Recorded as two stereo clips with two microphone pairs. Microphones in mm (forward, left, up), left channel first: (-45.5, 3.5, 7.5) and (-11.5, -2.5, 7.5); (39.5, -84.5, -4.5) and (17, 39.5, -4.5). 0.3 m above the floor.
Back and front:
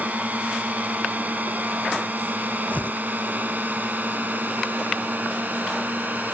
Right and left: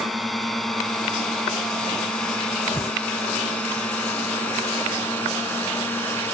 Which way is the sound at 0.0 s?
10° left.